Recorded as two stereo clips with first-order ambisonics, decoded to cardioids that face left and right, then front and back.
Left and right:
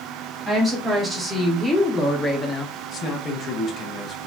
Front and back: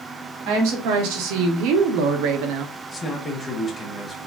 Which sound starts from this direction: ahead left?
A man speaking, at 2.9 s.